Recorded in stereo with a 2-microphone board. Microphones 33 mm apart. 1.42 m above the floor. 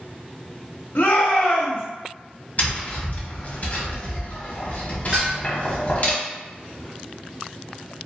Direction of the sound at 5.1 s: 20° right (ahead or behind).